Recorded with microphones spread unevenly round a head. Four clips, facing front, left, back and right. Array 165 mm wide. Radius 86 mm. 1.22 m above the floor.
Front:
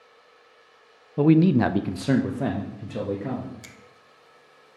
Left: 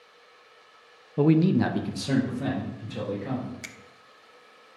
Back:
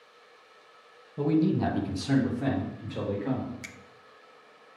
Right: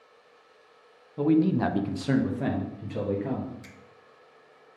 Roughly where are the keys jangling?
I don't hear keys jangling.